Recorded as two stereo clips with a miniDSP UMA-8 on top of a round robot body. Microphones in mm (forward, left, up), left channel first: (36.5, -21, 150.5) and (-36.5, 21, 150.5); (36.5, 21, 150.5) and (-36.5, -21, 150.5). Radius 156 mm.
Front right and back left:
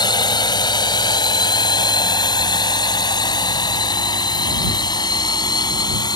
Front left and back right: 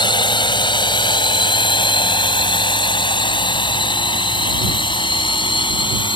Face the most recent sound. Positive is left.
turn(degrees=5)